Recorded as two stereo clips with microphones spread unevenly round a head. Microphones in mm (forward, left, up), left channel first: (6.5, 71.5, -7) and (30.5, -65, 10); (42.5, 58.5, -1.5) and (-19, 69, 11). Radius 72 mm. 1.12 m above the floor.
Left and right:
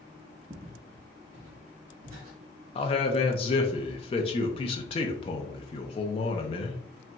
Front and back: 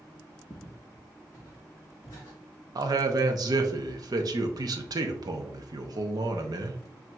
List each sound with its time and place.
0.5 s footsteps: 80° right, 1.3 m; by 2.4 s 85° right, 2.5 m
2.8 s a man speaking: 150° left, 0.7 m